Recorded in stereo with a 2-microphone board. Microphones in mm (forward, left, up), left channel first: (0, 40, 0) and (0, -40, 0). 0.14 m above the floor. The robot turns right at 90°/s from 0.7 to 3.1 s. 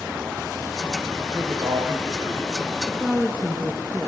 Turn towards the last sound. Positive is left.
turn(degrees=-10)  # may be behind; listen again after turning